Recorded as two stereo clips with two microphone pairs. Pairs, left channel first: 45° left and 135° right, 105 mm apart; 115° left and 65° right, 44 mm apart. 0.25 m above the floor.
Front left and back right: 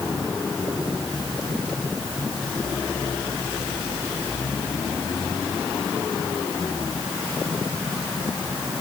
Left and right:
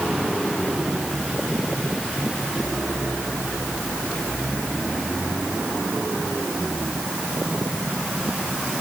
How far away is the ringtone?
No ringtone in this recording.